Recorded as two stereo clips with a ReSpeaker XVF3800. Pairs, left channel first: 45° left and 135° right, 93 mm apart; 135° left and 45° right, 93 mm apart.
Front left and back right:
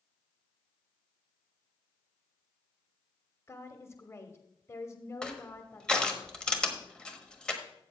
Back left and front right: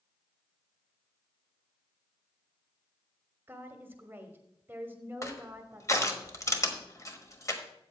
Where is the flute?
No flute in this recording.